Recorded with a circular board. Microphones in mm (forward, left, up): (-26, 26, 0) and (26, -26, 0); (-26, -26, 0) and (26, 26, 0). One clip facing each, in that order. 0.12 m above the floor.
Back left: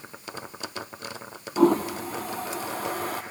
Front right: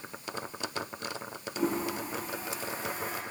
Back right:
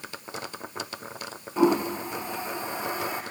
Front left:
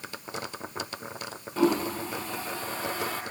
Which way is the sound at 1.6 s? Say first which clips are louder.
Back left 10 dB, back right 2 dB; 150° left.